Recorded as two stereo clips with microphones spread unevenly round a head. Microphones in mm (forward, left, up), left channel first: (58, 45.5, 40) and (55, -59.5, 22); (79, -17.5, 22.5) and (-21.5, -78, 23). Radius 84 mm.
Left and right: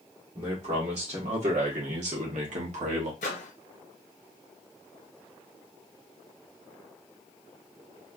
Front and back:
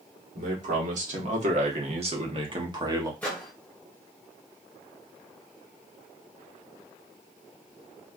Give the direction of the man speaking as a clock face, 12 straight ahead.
5 o'clock.